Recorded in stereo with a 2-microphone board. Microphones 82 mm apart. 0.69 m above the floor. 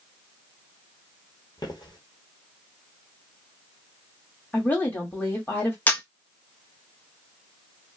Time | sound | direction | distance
1.6 | footsteps | 55° left (ahead or behind) | 1.1 m
4.5 | a woman speaking | 25° left (ahead or behind) | 1.3 m
5.9 | a camera shutter | 20° left (ahead or behind) | 0.6 m